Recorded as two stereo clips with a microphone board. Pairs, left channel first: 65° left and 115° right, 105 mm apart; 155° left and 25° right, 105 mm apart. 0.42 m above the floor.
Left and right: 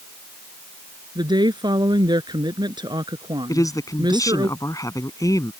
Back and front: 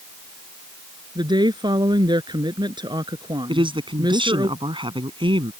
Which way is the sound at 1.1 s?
65° right.